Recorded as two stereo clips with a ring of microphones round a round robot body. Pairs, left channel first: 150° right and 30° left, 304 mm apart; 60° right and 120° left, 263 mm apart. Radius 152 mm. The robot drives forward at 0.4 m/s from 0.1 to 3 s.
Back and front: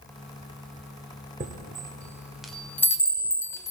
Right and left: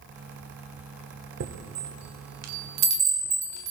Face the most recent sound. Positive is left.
turn(degrees=130)